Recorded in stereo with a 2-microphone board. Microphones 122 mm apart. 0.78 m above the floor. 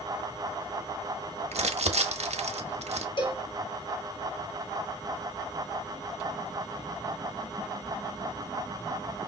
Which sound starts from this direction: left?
A cowbell, at 3.2 s.